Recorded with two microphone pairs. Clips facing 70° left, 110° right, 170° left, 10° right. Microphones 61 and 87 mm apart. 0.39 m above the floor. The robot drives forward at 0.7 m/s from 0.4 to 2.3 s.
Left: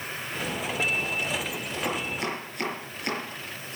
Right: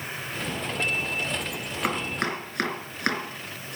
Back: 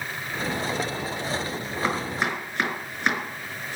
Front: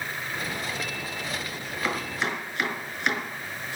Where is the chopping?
135° right, 4 m; by 3.8 s 140° right, 4 m.